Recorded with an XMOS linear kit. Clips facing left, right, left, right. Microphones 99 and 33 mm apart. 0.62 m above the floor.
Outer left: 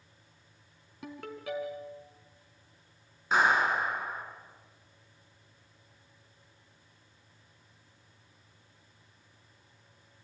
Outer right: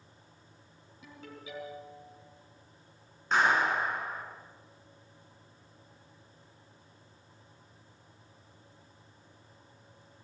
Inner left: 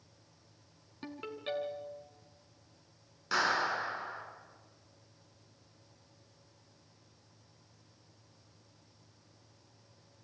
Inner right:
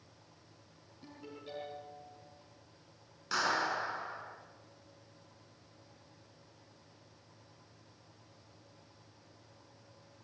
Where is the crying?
I don't hear crying.